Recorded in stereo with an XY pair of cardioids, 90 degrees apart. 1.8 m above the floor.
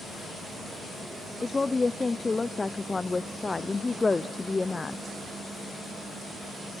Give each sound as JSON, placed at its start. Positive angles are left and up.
{"t": 1.4, "sound": "a woman speaking", "azimuth_deg": 25, "distance_m": 0.8}